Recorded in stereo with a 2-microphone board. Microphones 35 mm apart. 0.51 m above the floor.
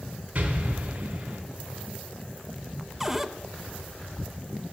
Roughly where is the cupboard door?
Centre.